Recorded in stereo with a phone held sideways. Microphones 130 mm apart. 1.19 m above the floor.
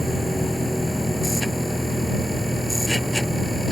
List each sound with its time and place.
0.0 s a machine running: centre (ahead or behind)